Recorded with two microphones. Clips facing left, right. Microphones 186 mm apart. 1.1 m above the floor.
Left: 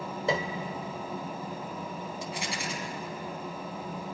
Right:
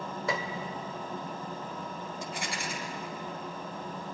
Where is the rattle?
60° right (ahead or behind), 3 m.